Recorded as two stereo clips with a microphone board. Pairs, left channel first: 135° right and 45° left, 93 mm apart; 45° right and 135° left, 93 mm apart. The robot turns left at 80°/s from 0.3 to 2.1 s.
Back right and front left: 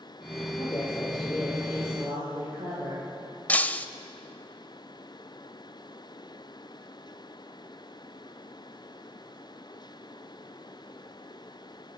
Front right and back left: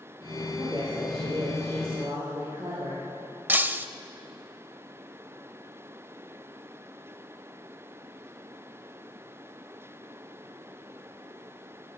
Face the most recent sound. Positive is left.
turn(degrees=175)